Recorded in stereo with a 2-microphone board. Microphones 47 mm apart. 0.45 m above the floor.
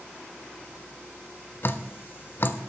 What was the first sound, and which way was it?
Dripping, 50° left (ahead or behind).